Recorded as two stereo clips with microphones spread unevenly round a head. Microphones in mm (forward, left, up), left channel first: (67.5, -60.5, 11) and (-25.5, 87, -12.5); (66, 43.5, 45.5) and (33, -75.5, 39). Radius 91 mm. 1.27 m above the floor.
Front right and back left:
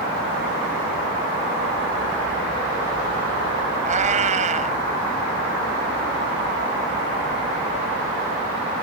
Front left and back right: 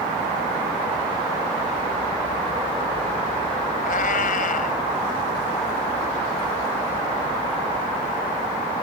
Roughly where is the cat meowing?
Left.